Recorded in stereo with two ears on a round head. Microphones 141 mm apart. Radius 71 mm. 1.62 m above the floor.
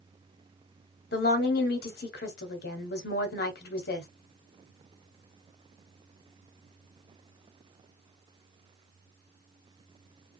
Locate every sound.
1.1 s a woman speaking: 75° left (ahead or behind), 1.0 m